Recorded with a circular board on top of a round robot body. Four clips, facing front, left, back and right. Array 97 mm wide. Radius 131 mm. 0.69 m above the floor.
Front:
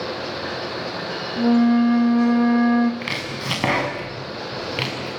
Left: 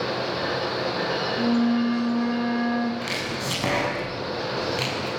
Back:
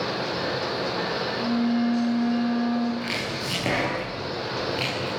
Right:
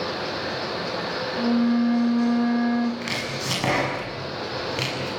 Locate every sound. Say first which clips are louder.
1.4 s a flute: right 2 dB, front 9 dB; straight ahead, 1.3 m
3.0 s chopping: even, front 1 dB; 10° right, 6.5 m